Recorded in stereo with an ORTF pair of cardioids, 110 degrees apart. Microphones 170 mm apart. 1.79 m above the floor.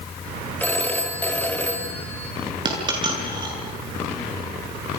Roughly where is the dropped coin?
Ahead right.